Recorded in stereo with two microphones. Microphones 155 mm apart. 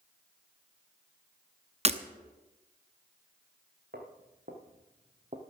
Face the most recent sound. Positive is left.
turn(degrees=-45)  # may be behind; listen again after turning